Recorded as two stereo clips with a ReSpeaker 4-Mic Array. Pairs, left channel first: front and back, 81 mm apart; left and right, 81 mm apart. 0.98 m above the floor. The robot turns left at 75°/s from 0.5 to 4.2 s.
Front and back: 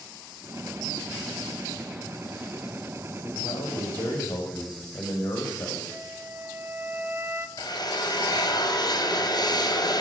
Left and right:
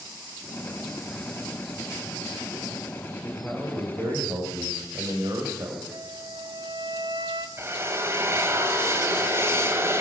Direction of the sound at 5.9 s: 115° right.